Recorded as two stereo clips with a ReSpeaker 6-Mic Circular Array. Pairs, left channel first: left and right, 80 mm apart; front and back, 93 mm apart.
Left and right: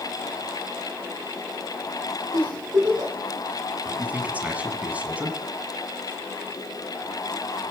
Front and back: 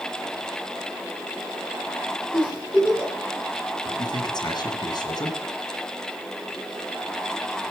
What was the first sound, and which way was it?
A giggle, 75° right.